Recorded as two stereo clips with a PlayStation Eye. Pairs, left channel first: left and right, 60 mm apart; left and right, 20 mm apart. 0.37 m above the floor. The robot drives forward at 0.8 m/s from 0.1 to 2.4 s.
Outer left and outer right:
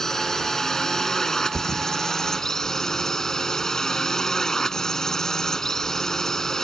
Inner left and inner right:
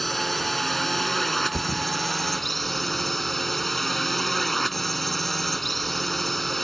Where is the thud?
15° left (ahead or behind).